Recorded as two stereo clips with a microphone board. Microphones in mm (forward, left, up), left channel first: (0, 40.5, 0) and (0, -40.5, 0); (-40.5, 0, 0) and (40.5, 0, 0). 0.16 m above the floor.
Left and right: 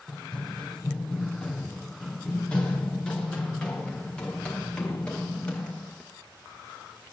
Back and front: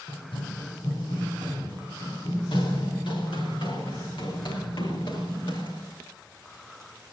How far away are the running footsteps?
About 4 m.